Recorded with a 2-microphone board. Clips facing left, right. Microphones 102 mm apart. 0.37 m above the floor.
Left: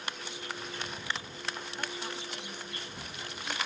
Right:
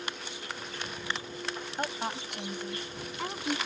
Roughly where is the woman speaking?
Right.